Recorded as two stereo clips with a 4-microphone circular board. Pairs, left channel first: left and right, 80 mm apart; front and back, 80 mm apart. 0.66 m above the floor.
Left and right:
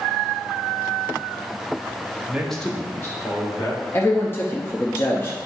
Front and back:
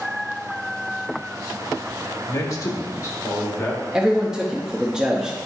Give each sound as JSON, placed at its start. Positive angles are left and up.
{"t": 2.3, "sound": "a man speaking", "azimuth_deg": -20, "distance_m": 1.2}
{"t": 3.9, "sound": "a man speaking", "azimuth_deg": 110, "distance_m": 0.6}